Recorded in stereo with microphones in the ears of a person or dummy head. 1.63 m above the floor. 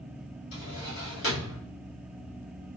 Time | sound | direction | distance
0.5 | a drawer | 65° left (ahead or behind) | 1.9 m